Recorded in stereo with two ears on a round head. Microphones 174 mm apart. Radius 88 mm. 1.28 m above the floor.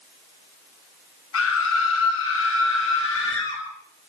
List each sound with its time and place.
1.3 s a scream: 80° left, 7 m; by 3.6 s 75° left (ahead or behind), 9 m